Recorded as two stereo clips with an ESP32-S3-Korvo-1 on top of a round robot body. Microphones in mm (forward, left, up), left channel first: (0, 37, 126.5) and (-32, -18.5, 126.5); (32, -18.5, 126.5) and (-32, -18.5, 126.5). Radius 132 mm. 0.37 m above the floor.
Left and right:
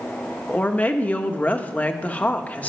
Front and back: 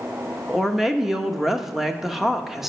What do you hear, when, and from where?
0.5 s a woman speaking: 100° left, 1.3 m